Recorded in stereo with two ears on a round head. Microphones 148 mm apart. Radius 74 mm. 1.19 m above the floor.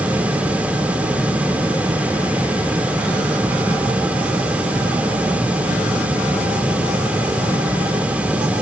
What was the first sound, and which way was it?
Only background noise.